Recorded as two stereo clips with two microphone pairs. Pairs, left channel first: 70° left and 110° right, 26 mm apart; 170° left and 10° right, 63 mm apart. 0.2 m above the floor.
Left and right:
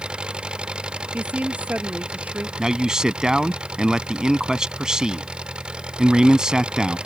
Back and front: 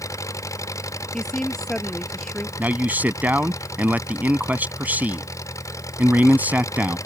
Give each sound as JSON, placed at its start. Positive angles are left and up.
{"t": 0.0, "sound": "an engine running", "azimuth_deg": -160}
{"t": 1.1, "sound": "a woman speaking", "azimuth_deg": -110}
{"t": 2.6, "sound": "a man speaking", "azimuth_deg": -60}